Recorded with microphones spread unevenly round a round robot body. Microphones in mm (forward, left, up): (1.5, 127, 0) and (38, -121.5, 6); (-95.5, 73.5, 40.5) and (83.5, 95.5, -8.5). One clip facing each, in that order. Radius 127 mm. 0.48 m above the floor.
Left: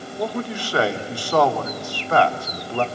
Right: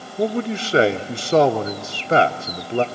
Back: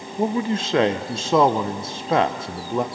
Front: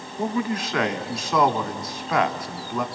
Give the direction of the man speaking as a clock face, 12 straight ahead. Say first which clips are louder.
Right 5 dB, back 3 dB; 4 o'clock.